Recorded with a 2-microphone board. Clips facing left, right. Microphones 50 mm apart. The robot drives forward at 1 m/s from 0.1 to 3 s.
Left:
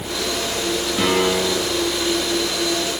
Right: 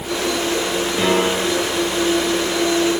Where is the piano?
5° right (ahead or behind), 10 m.